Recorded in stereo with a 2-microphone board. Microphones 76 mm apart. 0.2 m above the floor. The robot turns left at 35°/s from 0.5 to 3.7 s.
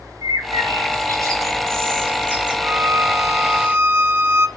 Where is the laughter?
No laughter in this recording.